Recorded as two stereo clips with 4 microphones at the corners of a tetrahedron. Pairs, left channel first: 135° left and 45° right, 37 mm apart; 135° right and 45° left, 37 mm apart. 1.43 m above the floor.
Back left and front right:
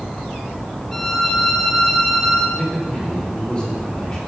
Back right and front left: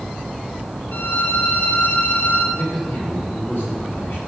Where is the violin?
145° right, 3 m.